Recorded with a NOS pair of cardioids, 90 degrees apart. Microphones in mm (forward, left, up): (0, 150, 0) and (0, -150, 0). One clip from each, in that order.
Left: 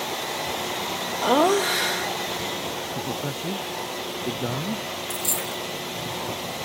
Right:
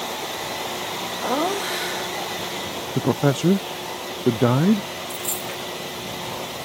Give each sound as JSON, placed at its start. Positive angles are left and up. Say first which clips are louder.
{"t": 1.2, "sound": "laughter", "louder": "left 5 dB", "azimuth_deg": 30}
{"t": 3.0, "sound": "a man speaking", "louder": "right 7 dB", "azimuth_deg": -55}
{"t": 5.1, "sound": "a dropped coin", "louder": "left 1 dB", "azimuth_deg": 30}